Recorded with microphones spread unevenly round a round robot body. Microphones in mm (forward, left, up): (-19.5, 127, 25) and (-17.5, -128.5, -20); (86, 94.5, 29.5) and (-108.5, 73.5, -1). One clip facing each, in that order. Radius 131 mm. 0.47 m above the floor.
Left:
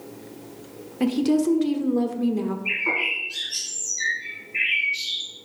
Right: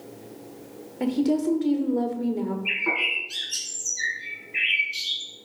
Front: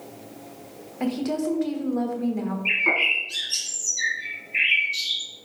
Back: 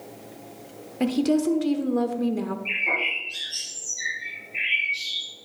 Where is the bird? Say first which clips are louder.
Even, front 4 dB; 35° right, 2.5 m.